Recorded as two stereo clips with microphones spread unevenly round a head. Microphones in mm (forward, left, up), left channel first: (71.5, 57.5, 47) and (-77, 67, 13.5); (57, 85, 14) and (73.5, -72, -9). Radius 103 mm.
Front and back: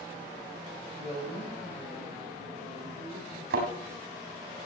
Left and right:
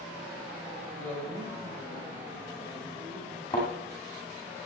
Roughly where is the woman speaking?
Ahead.